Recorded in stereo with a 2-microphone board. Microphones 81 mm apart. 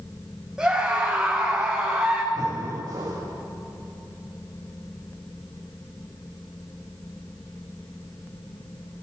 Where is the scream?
10° right (ahead or behind), 6.5 m.